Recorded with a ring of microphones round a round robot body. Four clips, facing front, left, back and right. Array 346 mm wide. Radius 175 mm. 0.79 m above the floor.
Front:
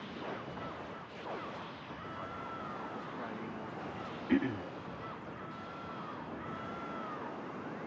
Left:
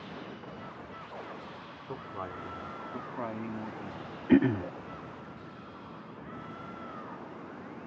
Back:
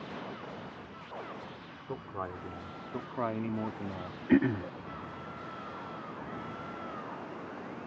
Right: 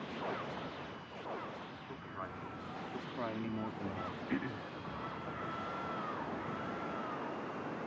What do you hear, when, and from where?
1.9 s a man speaking: 155° left; by 4.2 s 155° right
4.3 s throat clearing: 110° left